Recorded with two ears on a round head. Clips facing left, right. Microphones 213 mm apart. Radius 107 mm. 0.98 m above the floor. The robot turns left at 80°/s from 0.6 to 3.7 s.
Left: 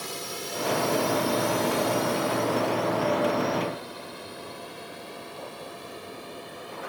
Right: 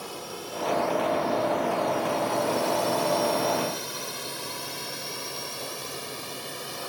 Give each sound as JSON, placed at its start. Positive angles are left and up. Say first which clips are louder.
{"t": 0.0, "sound": "a drone", "louder": "even", "side_deg": 30}